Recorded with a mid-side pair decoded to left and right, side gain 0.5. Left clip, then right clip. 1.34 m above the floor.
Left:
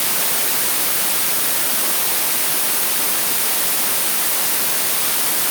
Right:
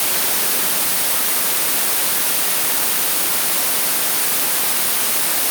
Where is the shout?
I don't hear a shout.